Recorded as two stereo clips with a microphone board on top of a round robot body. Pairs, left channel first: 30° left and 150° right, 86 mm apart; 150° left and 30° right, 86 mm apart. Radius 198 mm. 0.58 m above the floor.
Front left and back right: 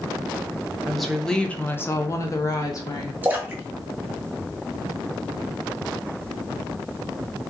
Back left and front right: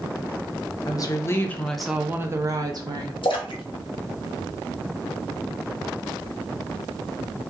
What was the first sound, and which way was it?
A woman speaking, 125° left.